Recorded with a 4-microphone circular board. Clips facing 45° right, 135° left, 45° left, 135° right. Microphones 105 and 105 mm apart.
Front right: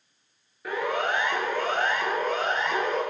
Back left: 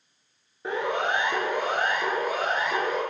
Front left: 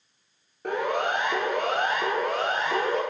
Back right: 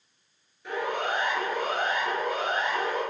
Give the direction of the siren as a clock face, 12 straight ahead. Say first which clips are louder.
Back left 1 dB, front left 3 dB; 10 o'clock.